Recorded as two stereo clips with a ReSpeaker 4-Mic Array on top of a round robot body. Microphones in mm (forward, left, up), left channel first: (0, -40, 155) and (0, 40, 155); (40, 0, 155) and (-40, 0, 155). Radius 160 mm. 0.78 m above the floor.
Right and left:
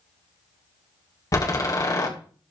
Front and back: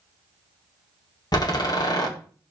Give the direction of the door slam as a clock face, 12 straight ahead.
1 o'clock.